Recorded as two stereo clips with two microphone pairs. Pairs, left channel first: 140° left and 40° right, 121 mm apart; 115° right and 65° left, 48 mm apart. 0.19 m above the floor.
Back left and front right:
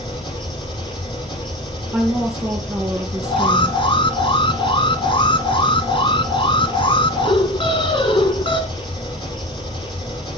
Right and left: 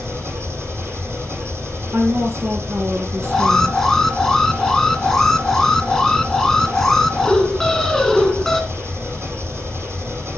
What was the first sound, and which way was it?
An engine running, 95° left.